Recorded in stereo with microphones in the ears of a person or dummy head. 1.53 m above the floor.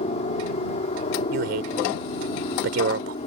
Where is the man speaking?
65° right (ahead or behind).